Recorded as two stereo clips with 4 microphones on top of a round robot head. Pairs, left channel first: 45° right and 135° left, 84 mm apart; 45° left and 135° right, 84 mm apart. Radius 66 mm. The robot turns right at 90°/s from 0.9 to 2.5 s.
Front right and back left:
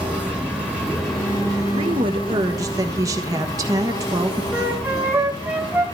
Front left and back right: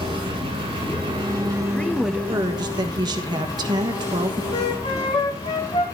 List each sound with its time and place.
0.0 s an engine running: 150° right, 8 m; by 6.0 s 5° right, 8 m
1.7 s a woman speaking: 115° left, 1.3 m; by 4.4 s 175° right, 1.3 m
4.5 s a flute: 65° left, 2.5 m